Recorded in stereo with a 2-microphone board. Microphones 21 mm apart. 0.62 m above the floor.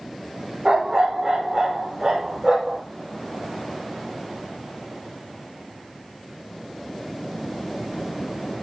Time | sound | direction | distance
0.7 | a dog barking | 30° right (ahead or behind) | 6.5 m